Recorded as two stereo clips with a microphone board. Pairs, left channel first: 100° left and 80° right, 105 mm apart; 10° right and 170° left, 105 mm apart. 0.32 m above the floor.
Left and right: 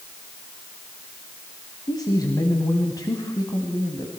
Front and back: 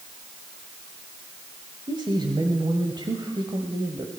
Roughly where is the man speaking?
Behind left.